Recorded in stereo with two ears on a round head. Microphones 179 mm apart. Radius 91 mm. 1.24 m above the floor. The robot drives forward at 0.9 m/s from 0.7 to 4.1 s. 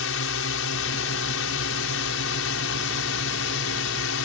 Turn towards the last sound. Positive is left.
turn(degrees=75)  # may be behind; listen again after turning